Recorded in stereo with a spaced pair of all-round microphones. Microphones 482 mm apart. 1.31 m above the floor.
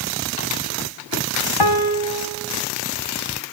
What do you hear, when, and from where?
1.6 s a piano: 50° left (ahead or behind), 0.8 m